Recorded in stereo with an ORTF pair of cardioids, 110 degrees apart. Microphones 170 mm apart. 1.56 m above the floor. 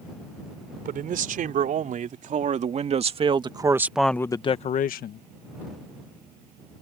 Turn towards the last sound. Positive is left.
turn(degrees=70)